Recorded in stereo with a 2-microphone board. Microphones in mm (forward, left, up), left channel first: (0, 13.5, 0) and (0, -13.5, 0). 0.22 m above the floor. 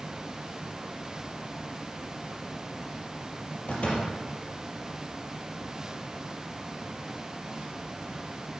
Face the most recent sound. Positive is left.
turn(degrees=45)  # may be behind; listen again after turning